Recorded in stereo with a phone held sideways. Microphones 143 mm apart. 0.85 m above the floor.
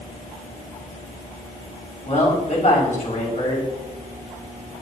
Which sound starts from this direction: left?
A man speaking, at 2.0 s.